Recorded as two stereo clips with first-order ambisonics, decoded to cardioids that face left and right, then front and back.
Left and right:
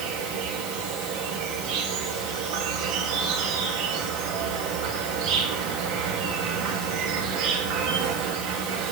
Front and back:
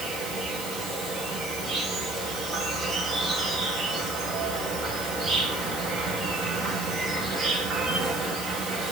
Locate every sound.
0.0 s an insect: 110° right, 3 m